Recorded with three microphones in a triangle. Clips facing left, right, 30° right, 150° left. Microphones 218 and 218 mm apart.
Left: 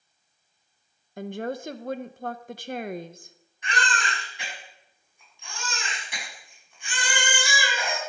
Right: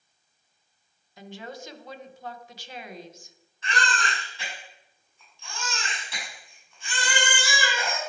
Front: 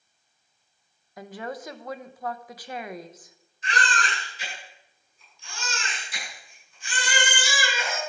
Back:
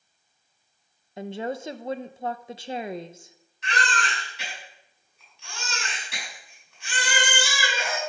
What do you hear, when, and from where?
1.2 s a woman speaking: 95° left, 0.5 m
3.6 s a baby crying: 165° left, 5.5 m